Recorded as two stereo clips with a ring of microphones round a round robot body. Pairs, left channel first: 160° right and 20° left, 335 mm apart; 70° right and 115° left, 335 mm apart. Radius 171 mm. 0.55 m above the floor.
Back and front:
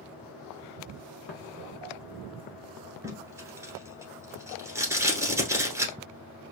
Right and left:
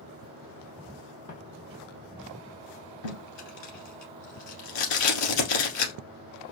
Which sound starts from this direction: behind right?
Footsteps, at 1.3 s.